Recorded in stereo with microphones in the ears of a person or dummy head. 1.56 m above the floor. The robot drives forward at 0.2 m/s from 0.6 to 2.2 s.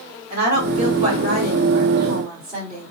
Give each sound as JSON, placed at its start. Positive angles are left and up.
{"t": 0.3, "sound": "a woman speaking", "side_deg": -40, "distance_m": 1.5}